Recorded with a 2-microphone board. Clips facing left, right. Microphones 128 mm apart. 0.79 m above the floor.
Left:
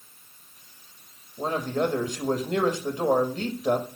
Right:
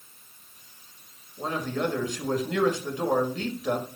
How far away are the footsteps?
No footsteps in this recording.